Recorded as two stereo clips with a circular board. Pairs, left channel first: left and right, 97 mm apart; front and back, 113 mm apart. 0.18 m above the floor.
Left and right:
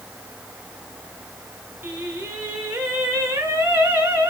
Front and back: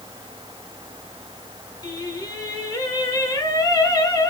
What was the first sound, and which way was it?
Singing, 35° right.